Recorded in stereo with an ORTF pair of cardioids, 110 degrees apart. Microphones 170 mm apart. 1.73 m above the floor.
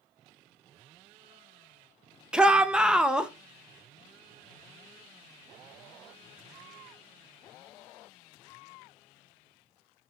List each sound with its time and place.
2.3 s a shout: 5° right, 0.7 m